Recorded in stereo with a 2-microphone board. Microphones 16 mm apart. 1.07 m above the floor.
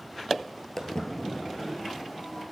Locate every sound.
0.8 s footsteps: 30° left (ahead or behind), 1.2 m; by 2.4 s 65° left (ahead or behind), 3 m